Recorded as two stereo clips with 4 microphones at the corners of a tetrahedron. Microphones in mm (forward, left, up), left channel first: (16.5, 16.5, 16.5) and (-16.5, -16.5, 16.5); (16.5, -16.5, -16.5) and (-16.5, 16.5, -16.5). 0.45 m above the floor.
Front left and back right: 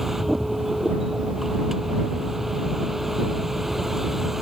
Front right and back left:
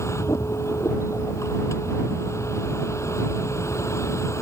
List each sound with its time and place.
0.0 s a vehicle: 50° right